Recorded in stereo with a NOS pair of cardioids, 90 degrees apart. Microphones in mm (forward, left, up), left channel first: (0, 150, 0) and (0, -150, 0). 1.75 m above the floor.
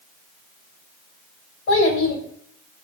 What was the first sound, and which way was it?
A child speaking, 45° left.